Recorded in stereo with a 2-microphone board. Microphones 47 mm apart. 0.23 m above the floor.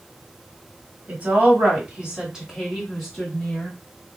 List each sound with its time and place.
1.1 s a woman speaking: 40° right (ahead or behind), 1.6 m; by 3.8 s 20° left (ahead or behind), 1.4 m